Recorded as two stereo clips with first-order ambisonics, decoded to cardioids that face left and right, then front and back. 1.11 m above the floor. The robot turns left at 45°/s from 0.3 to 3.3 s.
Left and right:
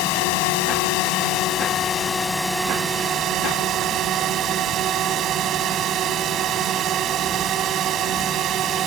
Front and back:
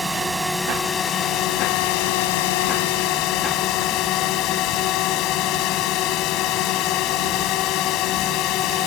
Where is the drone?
95° left; by 8.9 s 40° right.